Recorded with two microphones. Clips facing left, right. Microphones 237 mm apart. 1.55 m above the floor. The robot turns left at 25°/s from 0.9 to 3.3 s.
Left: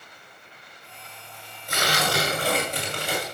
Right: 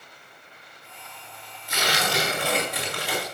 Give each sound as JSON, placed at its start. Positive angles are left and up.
{"t": 1.7, "sound": "tearing paper", "azimuth_deg": 60, "distance_m": 5.5}